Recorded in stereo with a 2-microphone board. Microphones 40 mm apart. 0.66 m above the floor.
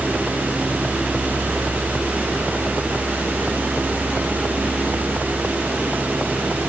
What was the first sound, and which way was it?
Only background noise.